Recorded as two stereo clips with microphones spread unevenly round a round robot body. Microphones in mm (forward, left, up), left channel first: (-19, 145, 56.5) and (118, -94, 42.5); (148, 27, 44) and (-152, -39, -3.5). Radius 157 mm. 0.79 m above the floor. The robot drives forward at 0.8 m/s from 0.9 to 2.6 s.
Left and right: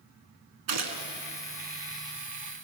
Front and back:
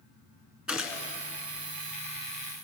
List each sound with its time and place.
0.7 s a gunshot: 75° right, 2 m; by 1.1 s 80° right, 2 m